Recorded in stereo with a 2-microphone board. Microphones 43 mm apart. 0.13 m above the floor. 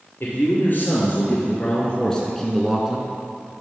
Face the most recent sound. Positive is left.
turn(degrees=-30)  # may be behind; listen again after turning